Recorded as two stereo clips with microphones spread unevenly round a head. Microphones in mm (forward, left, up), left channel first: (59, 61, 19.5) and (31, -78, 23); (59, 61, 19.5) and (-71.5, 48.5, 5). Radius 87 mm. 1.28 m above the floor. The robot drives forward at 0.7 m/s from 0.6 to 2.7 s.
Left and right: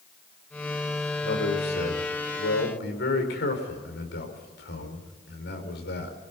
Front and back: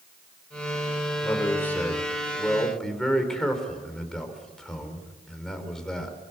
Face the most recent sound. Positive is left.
turn(degrees=90)